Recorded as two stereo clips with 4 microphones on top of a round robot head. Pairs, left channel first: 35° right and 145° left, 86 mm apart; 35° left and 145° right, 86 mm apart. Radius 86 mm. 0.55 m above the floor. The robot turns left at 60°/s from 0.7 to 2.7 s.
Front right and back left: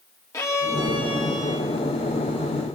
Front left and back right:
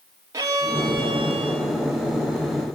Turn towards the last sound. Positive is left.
turn(degrees=150)